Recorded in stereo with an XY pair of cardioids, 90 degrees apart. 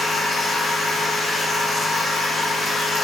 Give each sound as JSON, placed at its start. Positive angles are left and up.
{"t": 0.0, "sound": "a machine running", "azimuth_deg": 40, "distance_m": 2.5}